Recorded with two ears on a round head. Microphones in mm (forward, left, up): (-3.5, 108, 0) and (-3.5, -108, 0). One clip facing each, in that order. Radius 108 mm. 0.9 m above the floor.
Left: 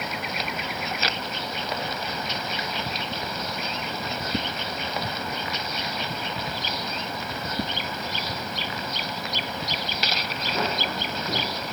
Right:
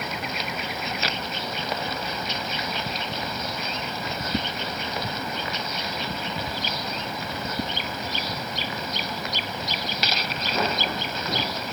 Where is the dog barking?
No dog barking in this recording.